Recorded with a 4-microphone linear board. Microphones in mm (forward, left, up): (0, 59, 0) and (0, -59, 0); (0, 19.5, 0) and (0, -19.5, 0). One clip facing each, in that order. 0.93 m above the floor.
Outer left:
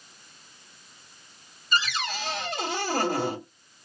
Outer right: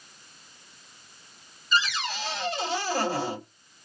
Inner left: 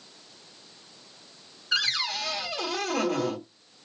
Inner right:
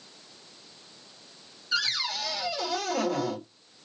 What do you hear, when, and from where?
1.7 s a cupboard door: 55° left (ahead or behind), 1.8 m